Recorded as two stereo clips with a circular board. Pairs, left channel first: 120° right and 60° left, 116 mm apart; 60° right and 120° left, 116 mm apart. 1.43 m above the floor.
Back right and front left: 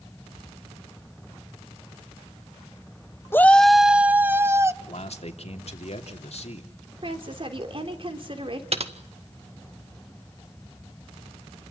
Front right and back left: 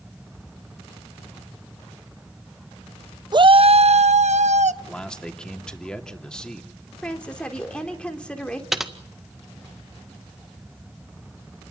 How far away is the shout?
About 0.6 m.